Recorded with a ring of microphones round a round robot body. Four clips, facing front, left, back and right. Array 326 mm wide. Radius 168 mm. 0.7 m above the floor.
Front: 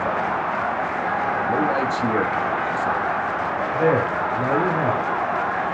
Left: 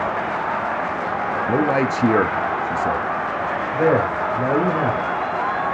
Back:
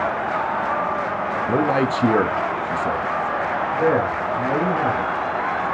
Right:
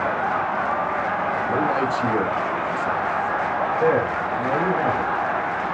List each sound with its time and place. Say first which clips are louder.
1.5 s a man speaking: left 4 dB, back 4 dB; 125° left, 1.0 m
3.7 s a man speaking: left 3 dB, even; 80° left, 3 m